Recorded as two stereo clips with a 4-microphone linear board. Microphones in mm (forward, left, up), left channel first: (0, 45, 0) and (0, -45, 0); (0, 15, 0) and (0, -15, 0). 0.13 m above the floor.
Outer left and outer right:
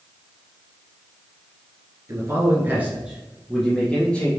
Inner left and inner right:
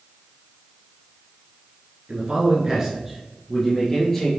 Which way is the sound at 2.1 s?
35° right (ahead or behind).